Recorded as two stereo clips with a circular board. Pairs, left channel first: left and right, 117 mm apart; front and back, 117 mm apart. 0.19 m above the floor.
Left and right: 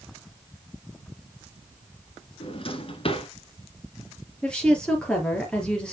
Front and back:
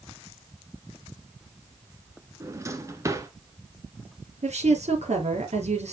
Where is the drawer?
120° left, 1.4 m.